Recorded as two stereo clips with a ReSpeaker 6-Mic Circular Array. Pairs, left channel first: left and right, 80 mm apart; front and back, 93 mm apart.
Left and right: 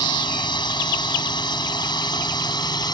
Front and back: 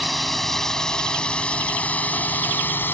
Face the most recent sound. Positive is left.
turn(degrees=65)